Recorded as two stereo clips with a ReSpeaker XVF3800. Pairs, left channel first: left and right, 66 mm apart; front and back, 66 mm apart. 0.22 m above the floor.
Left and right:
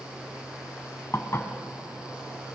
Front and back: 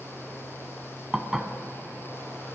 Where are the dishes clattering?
100° left, 1.0 m.